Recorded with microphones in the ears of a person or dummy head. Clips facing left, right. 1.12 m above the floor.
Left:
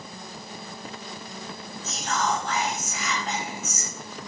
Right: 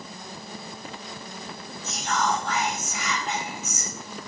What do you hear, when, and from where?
1.8 s whispering: 25° left (ahead or behind), 1.4 m